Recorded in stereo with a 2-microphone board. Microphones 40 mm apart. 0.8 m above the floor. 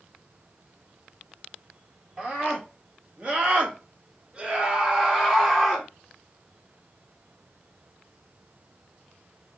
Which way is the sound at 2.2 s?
30° right (ahead or behind).